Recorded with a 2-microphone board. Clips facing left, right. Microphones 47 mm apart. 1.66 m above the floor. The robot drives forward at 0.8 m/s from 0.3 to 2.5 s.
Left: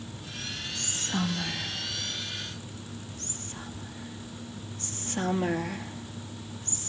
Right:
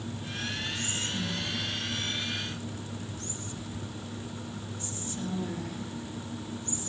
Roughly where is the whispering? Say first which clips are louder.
Left 1 dB; left.